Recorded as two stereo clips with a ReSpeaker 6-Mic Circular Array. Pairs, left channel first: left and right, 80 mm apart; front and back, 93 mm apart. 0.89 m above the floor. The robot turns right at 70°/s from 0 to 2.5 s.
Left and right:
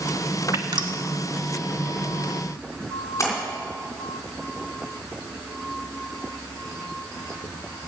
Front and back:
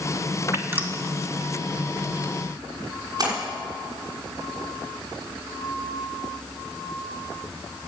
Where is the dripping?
130° right, 1.1 m; by 0.9 s 105° right, 1.1 m.